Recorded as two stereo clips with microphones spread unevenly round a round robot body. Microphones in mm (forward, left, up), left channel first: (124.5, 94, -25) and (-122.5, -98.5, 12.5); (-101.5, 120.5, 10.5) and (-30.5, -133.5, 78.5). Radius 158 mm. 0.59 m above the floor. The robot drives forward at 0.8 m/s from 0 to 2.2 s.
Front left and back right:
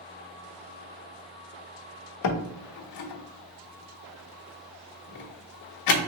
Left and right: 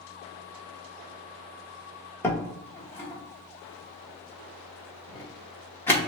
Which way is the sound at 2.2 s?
35° left.